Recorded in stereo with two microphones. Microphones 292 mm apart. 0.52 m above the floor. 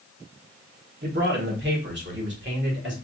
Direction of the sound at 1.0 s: 35° right (ahead or behind).